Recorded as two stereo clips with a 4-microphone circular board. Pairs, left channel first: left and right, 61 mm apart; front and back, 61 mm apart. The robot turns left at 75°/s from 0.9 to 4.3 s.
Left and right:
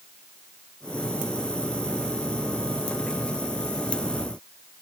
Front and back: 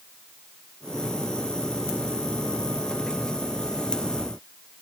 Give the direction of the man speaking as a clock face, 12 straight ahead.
No man speaking in this recording.